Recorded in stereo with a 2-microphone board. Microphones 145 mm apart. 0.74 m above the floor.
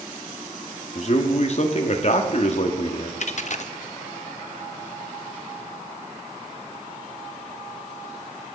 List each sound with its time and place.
0.9 s a man speaking: 50° left (ahead or behind), 1.0 m
3.2 s a dropped coin: 55° left (ahead or behind), 0.5 m